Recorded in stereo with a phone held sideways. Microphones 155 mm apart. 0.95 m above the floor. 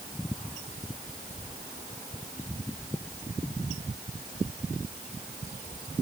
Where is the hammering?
No hammering in this recording.